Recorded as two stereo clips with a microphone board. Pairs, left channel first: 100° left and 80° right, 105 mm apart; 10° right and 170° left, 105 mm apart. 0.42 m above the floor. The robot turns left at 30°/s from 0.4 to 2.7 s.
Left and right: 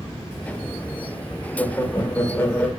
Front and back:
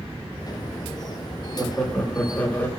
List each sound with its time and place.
1.6 s laughter: 75° left, 0.9 m; by 2.7 s 40° left, 0.9 m